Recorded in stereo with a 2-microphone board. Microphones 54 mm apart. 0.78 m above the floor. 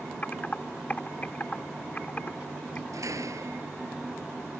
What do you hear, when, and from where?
0.2 s typing on a keyboard: 35° left (ahead or behind)
2.9 s a door slam: 85° right